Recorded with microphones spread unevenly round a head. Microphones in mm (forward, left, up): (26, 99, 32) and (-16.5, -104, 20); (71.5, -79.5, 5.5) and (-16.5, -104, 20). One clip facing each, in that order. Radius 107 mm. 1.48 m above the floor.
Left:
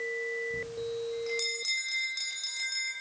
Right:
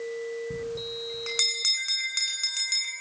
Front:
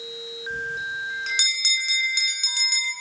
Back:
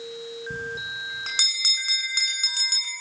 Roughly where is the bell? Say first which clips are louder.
Right 2 dB, front 6 dB; behind right.